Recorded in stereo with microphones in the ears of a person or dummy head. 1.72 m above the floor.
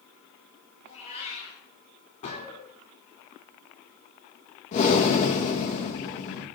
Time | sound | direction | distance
0.8 | a cat meowing | 40° left (ahead or behind) | 7 m
2.2 | a gunshot | 45° left (ahead or behind) | 5 m
4.7 | breathing | 40° left (ahead or behind) | 2.5 m